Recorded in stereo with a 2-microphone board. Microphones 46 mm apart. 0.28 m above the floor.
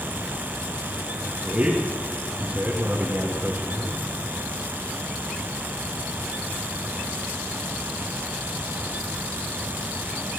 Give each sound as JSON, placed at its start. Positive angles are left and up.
{"t": 1.4, "sound": "a man speaking", "side_deg": -40, "distance_m": 1.9}